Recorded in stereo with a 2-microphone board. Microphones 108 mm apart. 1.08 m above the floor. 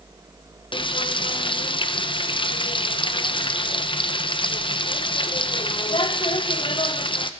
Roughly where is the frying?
Left.